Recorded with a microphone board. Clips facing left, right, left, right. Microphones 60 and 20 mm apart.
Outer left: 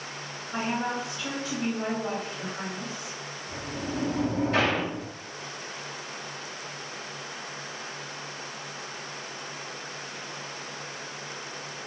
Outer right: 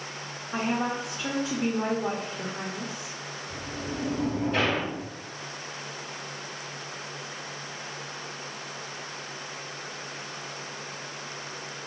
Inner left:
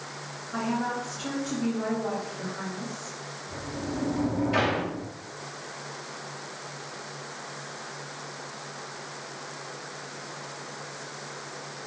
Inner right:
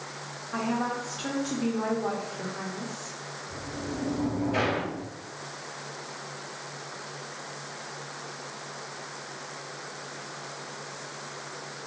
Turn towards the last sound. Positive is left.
turn(degrees=70)  # may be behind; listen again after turning